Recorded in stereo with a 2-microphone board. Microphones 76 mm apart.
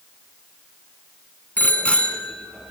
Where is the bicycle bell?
20° left (ahead or behind), 4.5 m; by 2.7 s 5° left (ahead or behind), 4 m.